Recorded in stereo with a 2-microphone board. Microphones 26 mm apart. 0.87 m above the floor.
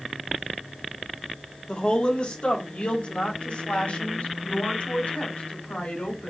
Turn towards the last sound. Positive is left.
turn(degrees=75)  # may be behind; listen again after turning